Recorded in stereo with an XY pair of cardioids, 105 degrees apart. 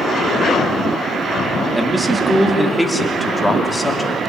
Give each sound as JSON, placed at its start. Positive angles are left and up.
{"t": 1.7, "sound": "a man speaking", "azimuth_deg": -15, "distance_m": 3.0}